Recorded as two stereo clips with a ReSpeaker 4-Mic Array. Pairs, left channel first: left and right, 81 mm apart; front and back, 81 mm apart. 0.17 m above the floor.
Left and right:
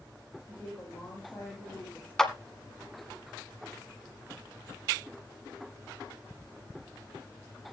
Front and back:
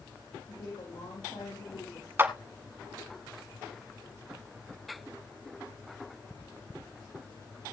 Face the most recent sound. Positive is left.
turn(degrees=165)